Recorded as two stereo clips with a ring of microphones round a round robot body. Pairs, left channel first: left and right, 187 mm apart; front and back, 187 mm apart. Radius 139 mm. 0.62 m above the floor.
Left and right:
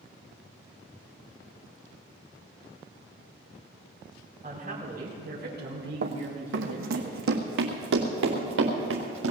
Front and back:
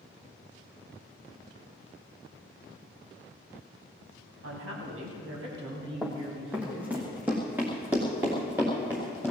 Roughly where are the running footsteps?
Right.